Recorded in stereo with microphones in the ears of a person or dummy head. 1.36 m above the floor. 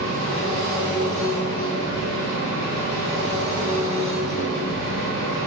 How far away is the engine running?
About 1.7 m.